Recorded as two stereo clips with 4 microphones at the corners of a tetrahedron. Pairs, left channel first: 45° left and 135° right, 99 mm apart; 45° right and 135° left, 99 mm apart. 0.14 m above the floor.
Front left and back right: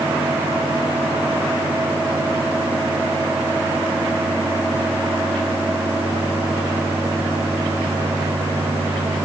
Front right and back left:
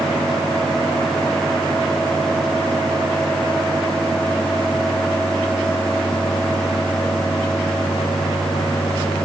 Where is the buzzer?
I don't hear a buzzer.